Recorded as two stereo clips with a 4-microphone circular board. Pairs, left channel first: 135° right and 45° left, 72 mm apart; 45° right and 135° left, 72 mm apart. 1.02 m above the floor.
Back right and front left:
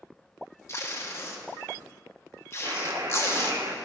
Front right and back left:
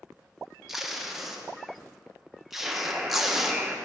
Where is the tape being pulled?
140° right, 0.9 m.